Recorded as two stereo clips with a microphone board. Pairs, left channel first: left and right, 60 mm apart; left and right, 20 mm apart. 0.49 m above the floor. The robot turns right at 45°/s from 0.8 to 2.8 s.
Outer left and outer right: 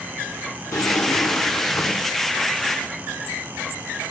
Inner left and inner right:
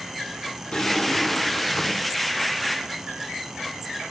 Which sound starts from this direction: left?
A drawer, at 0.7 s.